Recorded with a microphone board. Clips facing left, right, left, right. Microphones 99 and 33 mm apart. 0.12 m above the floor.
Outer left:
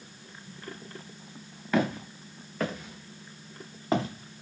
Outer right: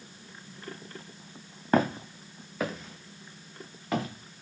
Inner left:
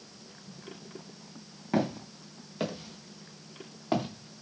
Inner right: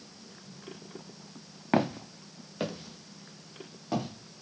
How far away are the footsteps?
About 0.8 m.